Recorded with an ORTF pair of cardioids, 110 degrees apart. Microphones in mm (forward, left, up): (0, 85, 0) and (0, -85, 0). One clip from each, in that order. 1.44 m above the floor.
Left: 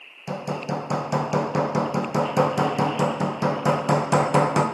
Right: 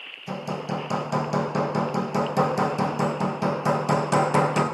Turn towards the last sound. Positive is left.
turn(degrees=15)